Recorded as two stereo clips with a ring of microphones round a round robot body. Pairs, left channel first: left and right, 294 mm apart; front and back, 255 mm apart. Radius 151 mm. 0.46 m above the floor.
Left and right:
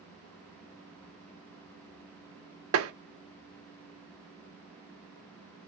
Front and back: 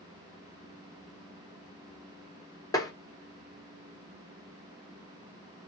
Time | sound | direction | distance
2.7 | tapping | 75° right | 0.7 m